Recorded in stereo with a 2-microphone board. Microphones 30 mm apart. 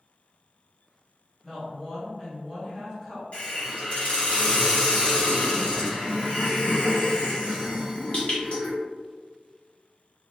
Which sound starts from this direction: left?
A hiss, at 3.3 s.